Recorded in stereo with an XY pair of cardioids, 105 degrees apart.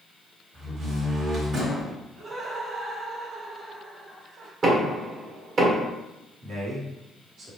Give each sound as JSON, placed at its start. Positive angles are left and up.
{"t": 0.5, "sound": "a door slam", "azimuth_deg": -55, "distance_m": 1.9}
{"t": 2.2, "sound": "laughter", "azimuth_deg": -40, "distance_m": 1.8}
{"t": 4.6, "sound": "knocking", "azimuth_deg": -50, "distance_m": 1.8}
{"t": 6.4, "sound": "a man speaking", "azimuth_deg": -65, "distance_m": 1.8}